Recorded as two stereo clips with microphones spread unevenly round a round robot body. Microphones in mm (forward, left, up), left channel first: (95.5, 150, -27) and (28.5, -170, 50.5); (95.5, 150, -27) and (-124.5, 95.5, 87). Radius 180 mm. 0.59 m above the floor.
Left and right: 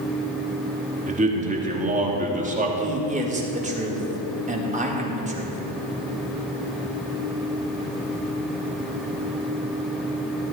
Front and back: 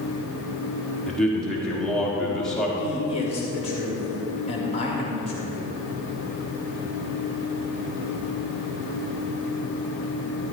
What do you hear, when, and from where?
1.1 s a man speaking: 30° right, 1.4 m
2.8 s a man speaking: 30° right, 1.7 m